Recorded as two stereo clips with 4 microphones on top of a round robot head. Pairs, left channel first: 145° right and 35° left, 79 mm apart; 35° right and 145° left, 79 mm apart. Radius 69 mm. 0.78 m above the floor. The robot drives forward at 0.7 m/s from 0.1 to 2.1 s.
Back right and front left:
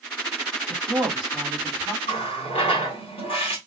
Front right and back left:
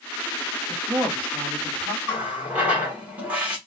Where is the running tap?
145° right, 1.6 m.